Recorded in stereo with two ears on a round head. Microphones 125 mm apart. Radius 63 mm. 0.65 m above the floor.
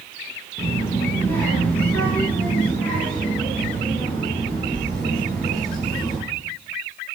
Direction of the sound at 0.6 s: 20° left (ahead or behind).